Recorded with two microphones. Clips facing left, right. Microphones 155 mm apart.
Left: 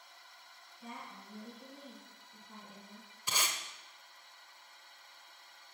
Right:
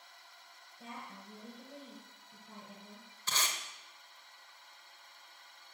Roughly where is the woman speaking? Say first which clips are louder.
Even; right.